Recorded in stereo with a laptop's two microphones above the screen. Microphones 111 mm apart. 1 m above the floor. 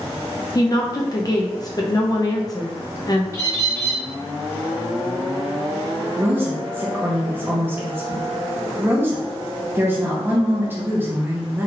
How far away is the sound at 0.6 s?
About 0.5 m.